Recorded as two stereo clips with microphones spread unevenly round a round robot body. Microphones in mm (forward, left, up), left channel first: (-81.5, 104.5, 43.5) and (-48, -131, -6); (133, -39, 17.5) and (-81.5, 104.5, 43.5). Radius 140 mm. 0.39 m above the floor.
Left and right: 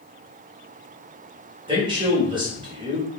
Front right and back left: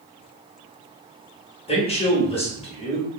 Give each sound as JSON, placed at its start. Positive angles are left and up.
{"t": 1.7, "sound": "a man speaking", "azimuth_deg": -65, "distance_m": 0.9}